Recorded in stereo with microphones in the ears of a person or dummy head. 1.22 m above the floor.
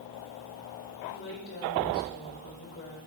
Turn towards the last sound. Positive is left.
turn(degrees=55)  # may be behind; listen again after turning